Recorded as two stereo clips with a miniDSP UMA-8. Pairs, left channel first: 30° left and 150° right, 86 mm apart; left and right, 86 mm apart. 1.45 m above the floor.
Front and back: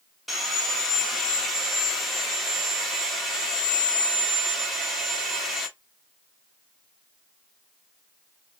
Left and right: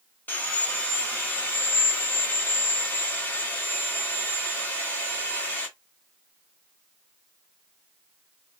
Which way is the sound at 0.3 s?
120° left.